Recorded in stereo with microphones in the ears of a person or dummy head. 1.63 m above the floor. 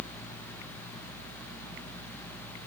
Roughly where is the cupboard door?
I don't hear a cupboard door.